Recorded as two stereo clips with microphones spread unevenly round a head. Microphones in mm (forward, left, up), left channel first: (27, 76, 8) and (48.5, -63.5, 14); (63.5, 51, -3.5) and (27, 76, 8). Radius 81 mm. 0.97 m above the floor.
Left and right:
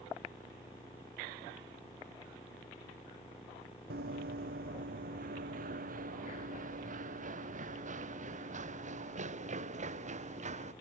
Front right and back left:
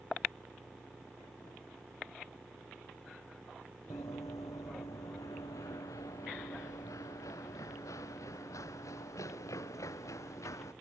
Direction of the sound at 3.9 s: 80° right.